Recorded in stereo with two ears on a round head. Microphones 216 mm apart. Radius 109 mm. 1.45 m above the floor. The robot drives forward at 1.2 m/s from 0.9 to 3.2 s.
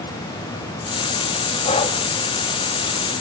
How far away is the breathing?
About 2 m.